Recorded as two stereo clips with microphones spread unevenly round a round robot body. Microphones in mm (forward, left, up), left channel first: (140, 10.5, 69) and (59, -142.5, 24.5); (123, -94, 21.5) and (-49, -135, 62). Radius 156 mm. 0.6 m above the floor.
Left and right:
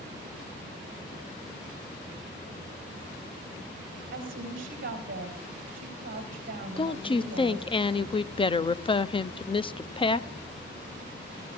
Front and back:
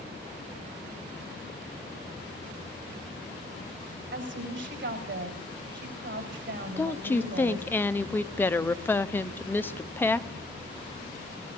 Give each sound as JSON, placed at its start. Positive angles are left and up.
{"t": 4.1, "sound": "a woman speaking", "azimuth_deg": -160, "distance_m": 4.0}
{"t": 6.8, "sound": "a woman speaking", "azimuth_deg": 0, "distance_m": 0.7}